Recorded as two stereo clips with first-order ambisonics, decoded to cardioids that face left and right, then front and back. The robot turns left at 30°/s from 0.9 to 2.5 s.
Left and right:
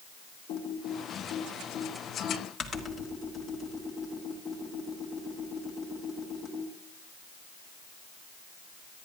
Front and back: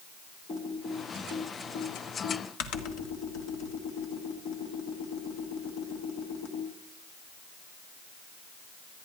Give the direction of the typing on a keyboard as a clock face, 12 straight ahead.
10 o'clock.